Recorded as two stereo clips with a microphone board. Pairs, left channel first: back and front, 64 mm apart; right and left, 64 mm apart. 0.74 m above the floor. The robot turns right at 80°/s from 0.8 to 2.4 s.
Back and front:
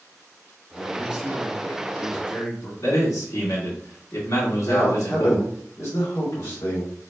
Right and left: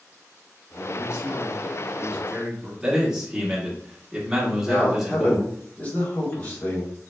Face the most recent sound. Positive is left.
turn(degrees=-155)